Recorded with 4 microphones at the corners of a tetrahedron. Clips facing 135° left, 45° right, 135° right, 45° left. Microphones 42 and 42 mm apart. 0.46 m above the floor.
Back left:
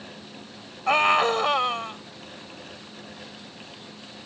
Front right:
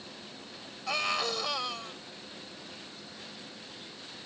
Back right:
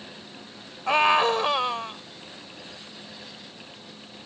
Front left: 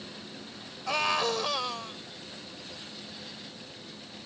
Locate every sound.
0.9 s a scream: 175° left